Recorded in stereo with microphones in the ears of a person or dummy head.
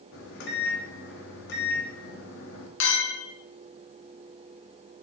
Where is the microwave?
60° left (ahead or behind), 1.7 m.